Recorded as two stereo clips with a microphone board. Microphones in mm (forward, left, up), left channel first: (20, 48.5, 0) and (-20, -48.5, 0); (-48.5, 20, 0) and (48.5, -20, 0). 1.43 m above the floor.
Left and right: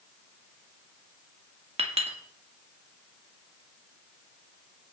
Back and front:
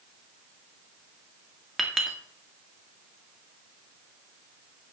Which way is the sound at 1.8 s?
110° right.